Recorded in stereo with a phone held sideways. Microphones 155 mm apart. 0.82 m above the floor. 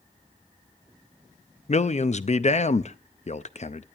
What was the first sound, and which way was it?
A man speaking, 50° left (ahead or behind).